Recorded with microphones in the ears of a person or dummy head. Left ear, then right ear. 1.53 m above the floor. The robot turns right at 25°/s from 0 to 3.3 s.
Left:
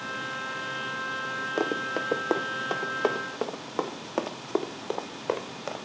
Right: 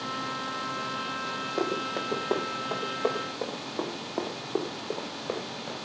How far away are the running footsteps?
About 2.5 m.